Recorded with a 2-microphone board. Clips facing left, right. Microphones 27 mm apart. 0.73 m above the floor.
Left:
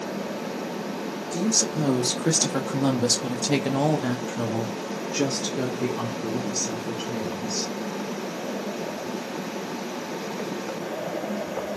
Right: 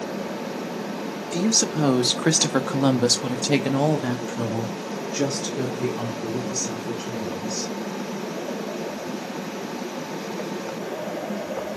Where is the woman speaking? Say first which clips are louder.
Right 3 dB; 50° right (ahead or behind), 1.3 m; by 7.7 s 25° left (ahead or behind), 2.5 m.